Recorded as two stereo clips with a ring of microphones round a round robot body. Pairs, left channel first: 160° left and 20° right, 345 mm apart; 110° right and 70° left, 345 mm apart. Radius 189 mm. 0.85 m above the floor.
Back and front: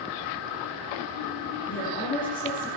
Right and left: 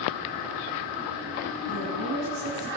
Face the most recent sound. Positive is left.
turn(degrees=80)